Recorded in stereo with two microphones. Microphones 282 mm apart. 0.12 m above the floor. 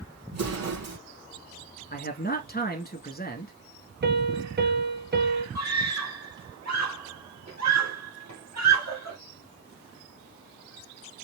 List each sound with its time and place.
0.3 s an explosion: 65° right (ahead or behind), 3 m
1.9 s a man speaking: 35° left (ahead or behind), 1.2 m
4.0 s a piano: 35° right (ahead or behind), 0.9 m
5.5 s a scream: 70° right (ahead or behind), 3 m